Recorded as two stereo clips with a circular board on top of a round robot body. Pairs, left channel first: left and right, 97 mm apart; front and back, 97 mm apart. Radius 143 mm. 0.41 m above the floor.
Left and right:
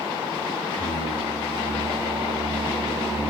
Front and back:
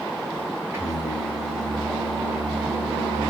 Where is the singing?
120° right, 4 m.